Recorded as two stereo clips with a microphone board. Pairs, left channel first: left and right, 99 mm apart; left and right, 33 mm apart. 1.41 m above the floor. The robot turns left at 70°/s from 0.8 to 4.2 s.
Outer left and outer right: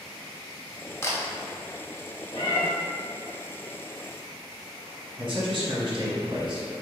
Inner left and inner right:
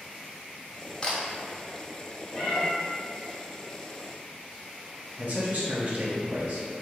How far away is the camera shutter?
About 0.6 m.